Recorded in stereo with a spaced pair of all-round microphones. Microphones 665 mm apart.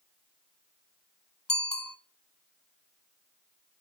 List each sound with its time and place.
1.5 s a bicycle bell: 30° left (ahead or behind), 2 m